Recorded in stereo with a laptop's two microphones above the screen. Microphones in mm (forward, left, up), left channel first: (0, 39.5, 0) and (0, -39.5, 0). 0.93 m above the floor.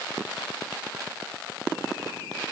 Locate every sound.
Only background noise.